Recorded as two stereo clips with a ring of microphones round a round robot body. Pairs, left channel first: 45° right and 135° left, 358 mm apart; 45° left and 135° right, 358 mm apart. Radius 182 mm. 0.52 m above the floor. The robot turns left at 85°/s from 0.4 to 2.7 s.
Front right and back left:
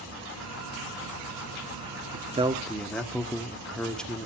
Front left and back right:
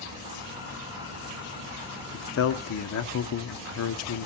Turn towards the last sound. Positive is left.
turn(degrees=40)